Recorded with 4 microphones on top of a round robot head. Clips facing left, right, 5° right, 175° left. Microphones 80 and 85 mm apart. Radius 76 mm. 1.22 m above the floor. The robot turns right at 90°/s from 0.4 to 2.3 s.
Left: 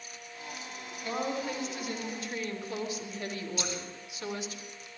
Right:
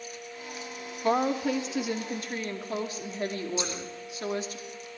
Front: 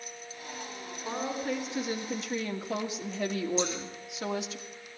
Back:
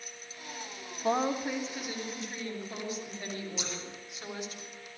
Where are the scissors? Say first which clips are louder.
Right 3 dB, front 10 dB; 160° right, 9 m.